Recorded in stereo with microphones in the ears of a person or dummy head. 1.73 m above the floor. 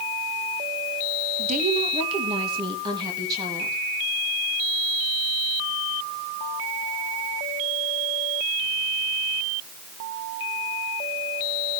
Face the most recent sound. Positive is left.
turn(degrees=-20)  # may be behind; listen again after turning